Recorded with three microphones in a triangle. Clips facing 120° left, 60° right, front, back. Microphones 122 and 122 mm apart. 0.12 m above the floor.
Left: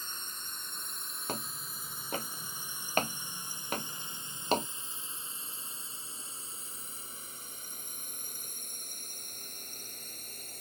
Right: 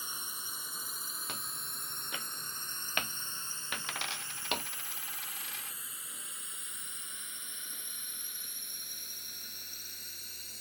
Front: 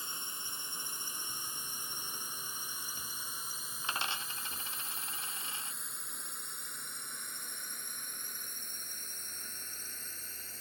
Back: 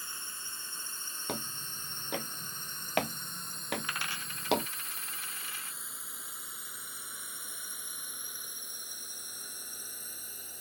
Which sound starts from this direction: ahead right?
A dropped coin, at 3.8 s.